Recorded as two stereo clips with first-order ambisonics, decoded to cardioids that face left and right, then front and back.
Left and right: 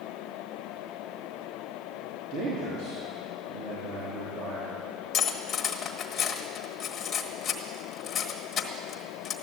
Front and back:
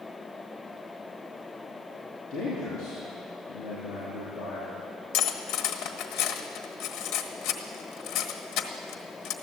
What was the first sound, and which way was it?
A man speaking, 60° right.